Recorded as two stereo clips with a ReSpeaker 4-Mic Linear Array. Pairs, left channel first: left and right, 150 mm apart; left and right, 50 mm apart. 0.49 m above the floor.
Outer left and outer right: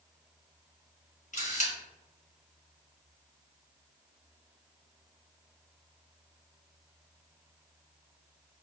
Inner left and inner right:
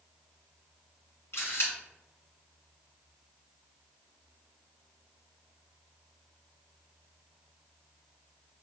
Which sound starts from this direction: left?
A camera shutter, at 1.3 s.